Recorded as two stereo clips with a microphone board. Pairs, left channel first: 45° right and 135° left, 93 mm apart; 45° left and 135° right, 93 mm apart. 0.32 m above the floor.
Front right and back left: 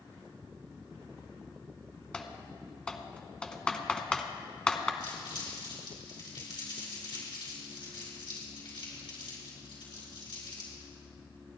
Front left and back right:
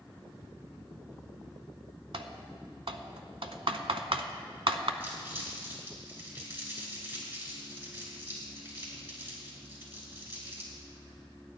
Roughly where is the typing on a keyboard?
Behind right.